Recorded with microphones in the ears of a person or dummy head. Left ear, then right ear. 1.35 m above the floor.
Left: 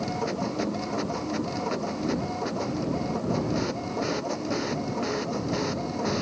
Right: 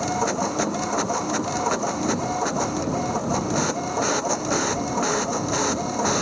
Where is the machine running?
40° right (ahead or behind).